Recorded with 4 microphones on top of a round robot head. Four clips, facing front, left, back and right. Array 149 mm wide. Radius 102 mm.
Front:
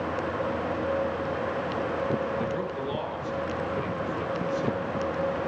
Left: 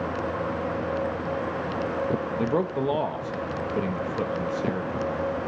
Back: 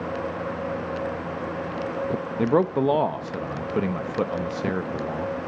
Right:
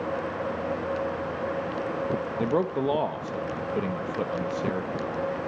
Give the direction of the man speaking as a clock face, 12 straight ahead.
6 o'clock.